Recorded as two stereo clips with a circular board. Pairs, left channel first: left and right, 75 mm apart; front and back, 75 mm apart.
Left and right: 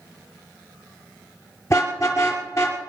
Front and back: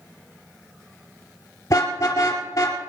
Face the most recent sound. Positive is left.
turn(degrees=40)